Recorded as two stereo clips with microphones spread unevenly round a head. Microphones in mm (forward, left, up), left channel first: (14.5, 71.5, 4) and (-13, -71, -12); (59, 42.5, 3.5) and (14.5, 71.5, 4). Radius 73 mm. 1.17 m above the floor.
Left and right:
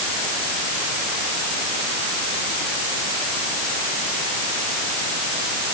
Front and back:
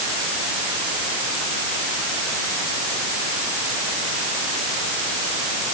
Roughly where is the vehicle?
I don't hear a vehicle.